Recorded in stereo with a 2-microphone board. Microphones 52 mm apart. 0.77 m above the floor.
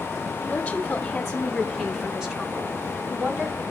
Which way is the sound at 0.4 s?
20° left (ahead or behind).